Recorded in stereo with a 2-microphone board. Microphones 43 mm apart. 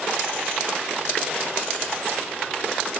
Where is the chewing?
No chewing in this recording.